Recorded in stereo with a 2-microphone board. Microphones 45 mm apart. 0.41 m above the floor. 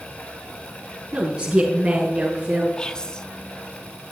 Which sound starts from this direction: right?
A woman speaking, at 1.1 s.